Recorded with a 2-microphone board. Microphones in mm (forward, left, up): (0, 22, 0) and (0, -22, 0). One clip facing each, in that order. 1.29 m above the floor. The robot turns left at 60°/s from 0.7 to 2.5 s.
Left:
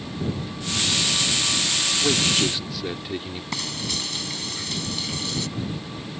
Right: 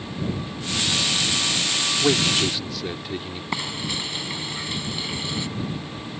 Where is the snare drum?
I don't hear a snare drum.